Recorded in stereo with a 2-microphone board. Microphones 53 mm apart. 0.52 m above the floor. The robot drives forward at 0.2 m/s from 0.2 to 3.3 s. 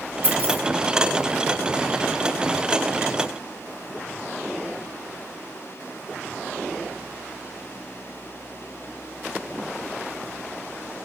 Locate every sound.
0.2 s keys jangling: 40° right (ahead or behind), 0.7 m